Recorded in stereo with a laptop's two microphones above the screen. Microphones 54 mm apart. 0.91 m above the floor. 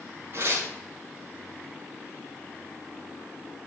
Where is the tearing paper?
45° right (ahead or behind), 6 m.